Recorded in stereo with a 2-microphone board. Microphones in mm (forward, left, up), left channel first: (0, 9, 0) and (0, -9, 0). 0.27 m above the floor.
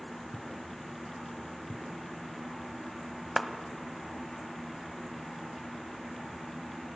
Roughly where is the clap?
Centre.